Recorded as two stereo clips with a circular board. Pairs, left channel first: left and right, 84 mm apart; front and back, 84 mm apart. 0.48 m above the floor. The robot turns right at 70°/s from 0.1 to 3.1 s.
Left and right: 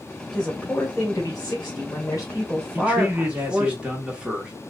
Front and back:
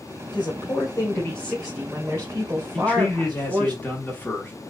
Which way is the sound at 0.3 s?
5° right.